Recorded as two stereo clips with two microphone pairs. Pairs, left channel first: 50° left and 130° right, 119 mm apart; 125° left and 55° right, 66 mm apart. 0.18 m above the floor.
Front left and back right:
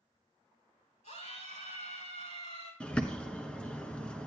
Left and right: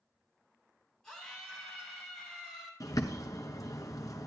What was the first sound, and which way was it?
A scream, 40° left.